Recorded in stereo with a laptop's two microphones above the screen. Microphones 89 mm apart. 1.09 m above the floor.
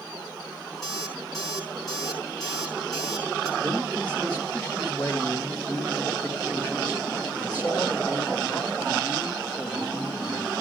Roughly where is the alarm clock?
Centre.